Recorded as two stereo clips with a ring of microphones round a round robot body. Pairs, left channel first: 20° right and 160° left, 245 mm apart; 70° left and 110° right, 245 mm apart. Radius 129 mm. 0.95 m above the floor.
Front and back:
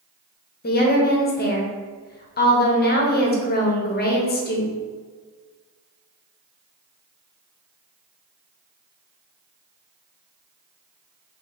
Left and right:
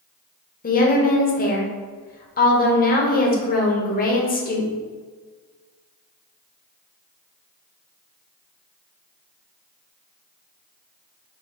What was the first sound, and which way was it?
A woman speaking, 20° left.